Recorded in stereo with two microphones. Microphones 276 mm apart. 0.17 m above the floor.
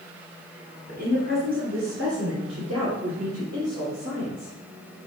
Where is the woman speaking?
30° right (ahead or behind), 1.4 m; by 4.5 s 50° right (ahead or behind), 4.5 m.